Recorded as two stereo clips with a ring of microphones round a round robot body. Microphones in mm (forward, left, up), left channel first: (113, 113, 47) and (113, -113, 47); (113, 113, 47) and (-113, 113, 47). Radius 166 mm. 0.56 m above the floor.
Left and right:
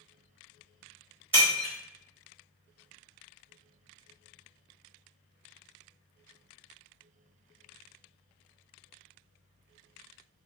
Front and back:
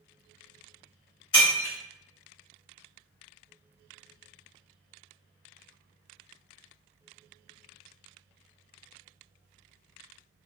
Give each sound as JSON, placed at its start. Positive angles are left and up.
{"t": 1.3, "sound": "breaking glass", "azimuth_deg": -55, "distance_m": 1.4}